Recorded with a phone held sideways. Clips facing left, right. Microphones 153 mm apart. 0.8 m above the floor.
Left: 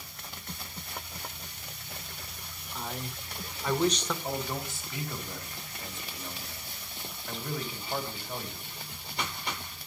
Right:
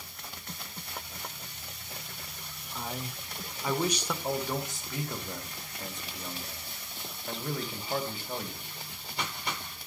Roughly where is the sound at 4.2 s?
Right.